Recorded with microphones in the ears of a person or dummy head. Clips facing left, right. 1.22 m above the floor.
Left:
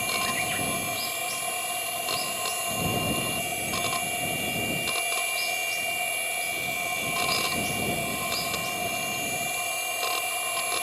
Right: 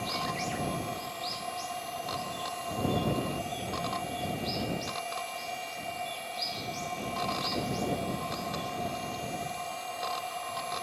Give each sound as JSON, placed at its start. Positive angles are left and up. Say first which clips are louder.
{"t": 0.0, "sound": "a machine running", "louder": "left 2 dB", "side_deg": 45}